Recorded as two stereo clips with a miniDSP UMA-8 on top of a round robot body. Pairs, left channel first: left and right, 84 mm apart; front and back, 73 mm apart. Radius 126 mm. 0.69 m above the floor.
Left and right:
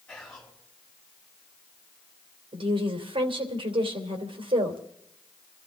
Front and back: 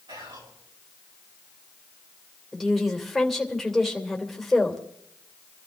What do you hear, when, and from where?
0.1 s whispering: 170° left, 6.5 m
2.5 s a woman speaking: 90° right, 2.5 m